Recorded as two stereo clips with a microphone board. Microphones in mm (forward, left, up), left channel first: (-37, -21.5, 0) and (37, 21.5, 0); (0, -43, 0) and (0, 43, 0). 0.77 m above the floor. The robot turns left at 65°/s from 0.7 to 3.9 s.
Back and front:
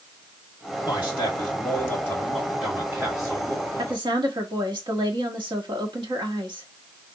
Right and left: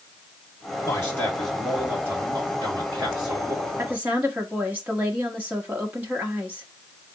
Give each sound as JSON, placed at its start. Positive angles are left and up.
{"t": 0.8, "sound": "a man speaking", "azimuth_deg": -135, "distance_m": 2.0}
{"t": 3.8, "sound": "a woman speaking", "azimuth_deg": 30, "distance_m": 1.2}